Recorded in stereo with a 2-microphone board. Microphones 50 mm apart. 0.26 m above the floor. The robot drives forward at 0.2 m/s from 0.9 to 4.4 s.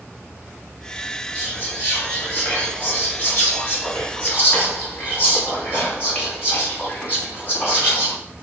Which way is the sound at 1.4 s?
45° left (ahead or behind).